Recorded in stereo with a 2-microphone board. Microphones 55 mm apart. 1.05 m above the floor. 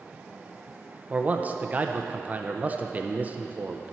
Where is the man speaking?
30° right (ahead or behind), 0.6 m.